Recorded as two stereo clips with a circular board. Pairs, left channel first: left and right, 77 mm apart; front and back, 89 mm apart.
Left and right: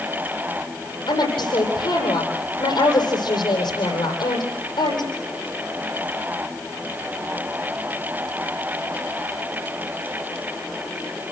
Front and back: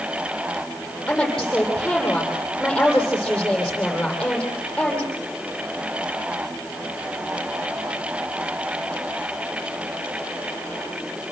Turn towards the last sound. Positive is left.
turn(degrees=80)